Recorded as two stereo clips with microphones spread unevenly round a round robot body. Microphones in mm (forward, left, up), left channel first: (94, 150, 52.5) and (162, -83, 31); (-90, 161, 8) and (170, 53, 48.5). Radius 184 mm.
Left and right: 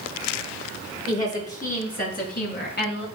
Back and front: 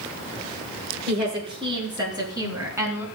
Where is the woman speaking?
50° left, 7.5 m; by 3.0 s 60° left, 5 m.